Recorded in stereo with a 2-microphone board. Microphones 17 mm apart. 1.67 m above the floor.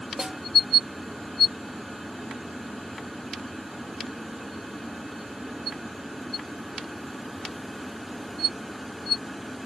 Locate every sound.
0.2 s a snare drum: 45° right (ahead or behind), 0.6 m